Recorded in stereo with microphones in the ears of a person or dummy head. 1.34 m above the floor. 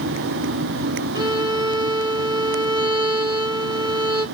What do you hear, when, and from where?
1.1 s a violin: 15° right (ahead or behind), 1.6 m